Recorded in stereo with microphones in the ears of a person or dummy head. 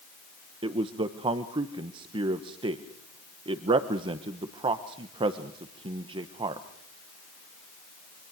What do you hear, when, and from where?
0.6 s a man speaking: 30° right (ahead or behind), 1.1 m